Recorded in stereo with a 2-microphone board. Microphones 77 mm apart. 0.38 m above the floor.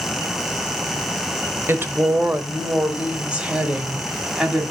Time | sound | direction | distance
1.7 | a woman speaking | 30° right (ahead or behind) | 1.2 m